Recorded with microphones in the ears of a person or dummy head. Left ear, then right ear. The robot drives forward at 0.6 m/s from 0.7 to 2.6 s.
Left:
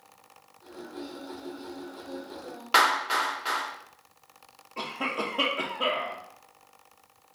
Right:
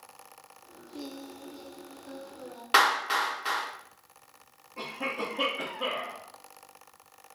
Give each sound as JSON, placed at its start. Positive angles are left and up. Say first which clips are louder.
{"t": 0.9, "sound": "singing", "louder": "left 1 dB", "side_deg": -75, "distance_m": 0.6}
{"t": 2.7, "sound": "a clap", "louder": "left 1 dB", "side_deg": -15, "distance_m": 1.2}
{"t": 4.8, "sound": "a cough", "louder": "left 3 dB", "side_deg": 60, "distance_m": 0.7}